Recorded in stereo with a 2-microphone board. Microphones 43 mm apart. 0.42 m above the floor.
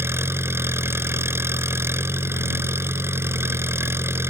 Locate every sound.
0.0 s an engine running: 80° right